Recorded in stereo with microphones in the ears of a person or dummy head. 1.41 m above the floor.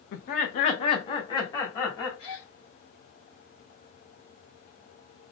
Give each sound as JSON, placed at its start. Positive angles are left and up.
{"t": 0.1, "sound": "laughter", "side_deg": 55, "distance_m": 0.6}
{"t": 2.2, "sound": "a gasp", "side_deg": 55, "distance_m": 1.9}